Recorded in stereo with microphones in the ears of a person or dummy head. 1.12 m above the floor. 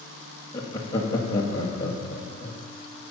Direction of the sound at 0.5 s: 20° left (ahead or behind).